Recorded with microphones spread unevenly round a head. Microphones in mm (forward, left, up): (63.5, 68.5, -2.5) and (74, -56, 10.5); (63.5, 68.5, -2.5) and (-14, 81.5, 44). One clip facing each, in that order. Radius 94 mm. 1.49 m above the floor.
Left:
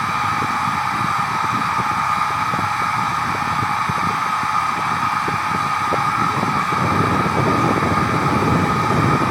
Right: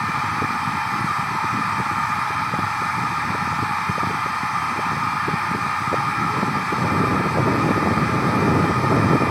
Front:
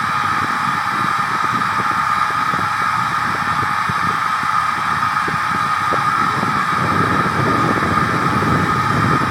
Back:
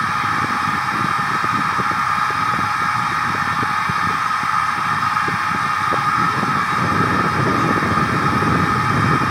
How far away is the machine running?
About 4 m.